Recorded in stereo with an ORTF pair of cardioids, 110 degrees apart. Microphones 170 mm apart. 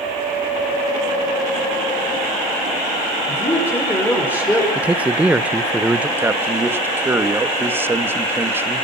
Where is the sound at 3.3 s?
10° left, 5.5 m.